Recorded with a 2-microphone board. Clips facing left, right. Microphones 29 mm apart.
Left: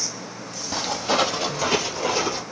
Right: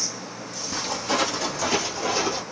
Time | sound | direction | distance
0.7 | footsteps | 45° left (ahead or behind) | 2 m